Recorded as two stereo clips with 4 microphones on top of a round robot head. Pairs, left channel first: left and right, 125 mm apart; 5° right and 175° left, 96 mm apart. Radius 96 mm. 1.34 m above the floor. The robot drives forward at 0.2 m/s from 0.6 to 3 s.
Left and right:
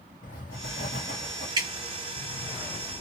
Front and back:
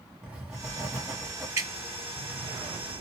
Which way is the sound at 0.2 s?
90° left.